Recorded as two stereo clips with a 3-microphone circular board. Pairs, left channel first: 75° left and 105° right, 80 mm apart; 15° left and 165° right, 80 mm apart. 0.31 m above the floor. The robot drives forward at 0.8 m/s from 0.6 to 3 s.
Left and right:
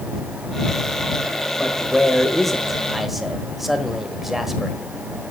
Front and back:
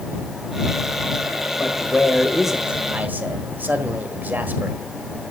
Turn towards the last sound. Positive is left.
turn(degrees=170)